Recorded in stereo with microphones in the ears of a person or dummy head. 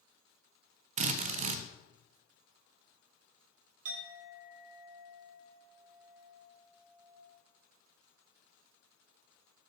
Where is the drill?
35° right (ahead or behind), 0.5 m.